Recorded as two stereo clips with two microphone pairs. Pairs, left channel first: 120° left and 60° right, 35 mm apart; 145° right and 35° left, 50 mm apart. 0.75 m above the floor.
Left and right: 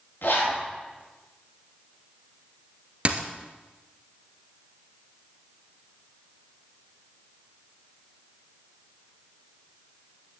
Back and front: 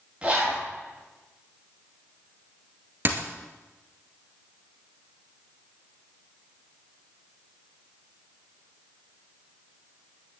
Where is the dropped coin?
10° right, 1.4 m.